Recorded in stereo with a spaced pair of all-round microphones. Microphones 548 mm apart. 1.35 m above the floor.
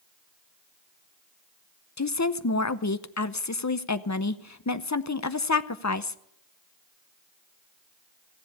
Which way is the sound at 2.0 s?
30° left (ahead or behind).